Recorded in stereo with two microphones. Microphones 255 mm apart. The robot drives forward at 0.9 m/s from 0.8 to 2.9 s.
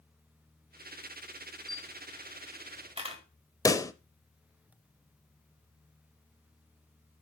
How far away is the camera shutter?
About 2 m.